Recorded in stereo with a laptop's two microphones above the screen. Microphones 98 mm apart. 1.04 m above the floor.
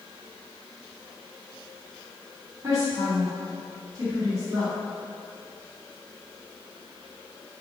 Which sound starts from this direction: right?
A woman speaking, at 2.6 s.